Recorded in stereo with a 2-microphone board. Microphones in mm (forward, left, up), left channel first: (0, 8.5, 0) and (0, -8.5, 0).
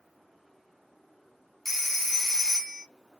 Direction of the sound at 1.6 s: 5° left (ahead or behind).